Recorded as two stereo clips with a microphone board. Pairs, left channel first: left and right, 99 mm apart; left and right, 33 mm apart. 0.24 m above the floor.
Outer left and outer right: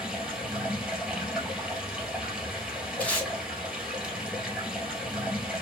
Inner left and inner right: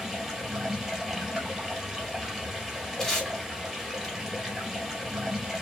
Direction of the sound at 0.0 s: 5° right (ahead or behind).